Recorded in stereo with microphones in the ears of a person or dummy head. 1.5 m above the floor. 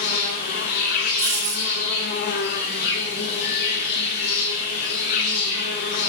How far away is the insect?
About 2.5 m.